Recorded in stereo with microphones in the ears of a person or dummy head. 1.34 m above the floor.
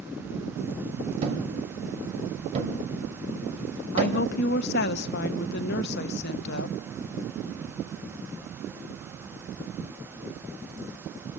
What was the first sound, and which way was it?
A thud, 40° right (ahead or behind).